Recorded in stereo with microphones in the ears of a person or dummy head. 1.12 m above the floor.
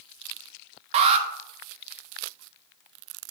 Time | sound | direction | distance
0.9 | an alarm | 35° right (ahead or behind) | 0.9 m